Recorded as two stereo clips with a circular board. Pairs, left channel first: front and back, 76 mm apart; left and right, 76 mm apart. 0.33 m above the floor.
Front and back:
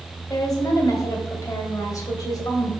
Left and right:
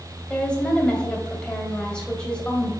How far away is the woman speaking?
About 1.8 m.